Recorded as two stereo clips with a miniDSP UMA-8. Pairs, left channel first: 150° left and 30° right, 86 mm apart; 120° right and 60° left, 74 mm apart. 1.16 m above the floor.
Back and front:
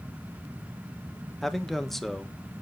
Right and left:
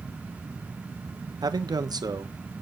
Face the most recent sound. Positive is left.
turn(degrees=60)